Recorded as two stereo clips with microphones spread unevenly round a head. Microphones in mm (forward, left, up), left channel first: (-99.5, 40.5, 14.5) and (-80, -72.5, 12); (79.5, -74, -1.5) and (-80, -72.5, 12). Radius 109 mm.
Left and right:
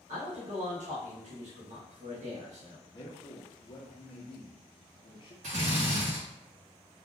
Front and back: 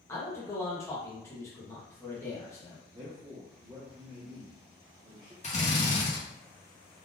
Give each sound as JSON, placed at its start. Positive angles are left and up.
{"t": 0.1, "sound": "a man speaking", "azimuth_deg": -70, "distance_m": 1.4}
{"t": 2.9, "sound": "a man speaking", "azimuth_deg": 115, "distance_m": 0.9}
{"t": 5.4, "sound": "a drill", "azimuth_deg": -40, "distance_m": 1.5}